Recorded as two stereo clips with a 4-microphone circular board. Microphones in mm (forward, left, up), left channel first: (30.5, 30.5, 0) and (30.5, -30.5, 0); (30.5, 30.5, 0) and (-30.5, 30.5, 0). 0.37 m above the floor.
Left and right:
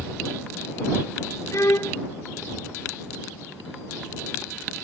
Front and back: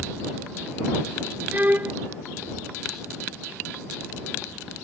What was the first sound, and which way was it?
A violin, 120° left.